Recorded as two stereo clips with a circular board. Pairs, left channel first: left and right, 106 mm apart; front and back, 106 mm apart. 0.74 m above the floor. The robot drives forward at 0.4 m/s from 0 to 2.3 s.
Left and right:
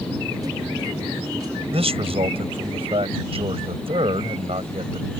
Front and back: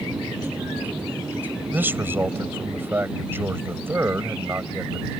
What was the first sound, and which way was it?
A man speaking, 110° right.